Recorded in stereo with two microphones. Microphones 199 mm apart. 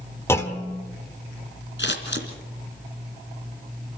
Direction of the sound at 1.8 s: 70° left (ahead or behind).